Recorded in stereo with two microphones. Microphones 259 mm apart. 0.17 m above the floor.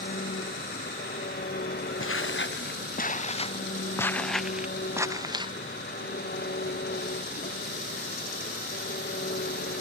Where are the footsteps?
55° left (ahead or behind); by 5.5 s 20° right (ahead or behind).